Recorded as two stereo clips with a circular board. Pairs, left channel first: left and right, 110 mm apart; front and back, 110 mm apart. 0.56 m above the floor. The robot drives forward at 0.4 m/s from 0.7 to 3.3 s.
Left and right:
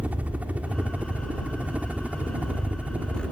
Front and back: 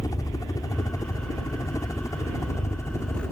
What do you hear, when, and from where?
0.0 s a helicopter: 25° right; by 3.3 s 30° right